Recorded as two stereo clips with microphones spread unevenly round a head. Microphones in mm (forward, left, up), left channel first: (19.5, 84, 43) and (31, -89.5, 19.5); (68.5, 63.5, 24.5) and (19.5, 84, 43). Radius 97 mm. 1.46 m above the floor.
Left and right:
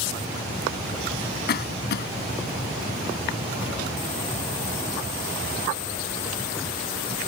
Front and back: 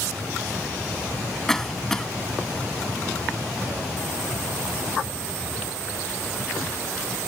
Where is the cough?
60° left.